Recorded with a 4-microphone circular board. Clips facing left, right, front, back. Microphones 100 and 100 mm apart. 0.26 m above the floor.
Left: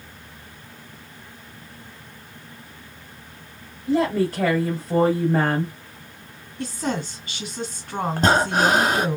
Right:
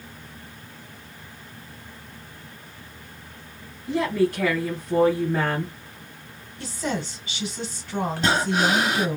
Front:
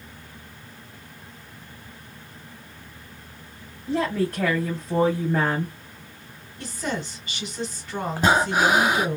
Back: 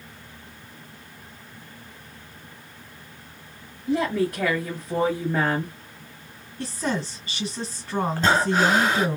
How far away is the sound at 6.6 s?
About 2.5 m.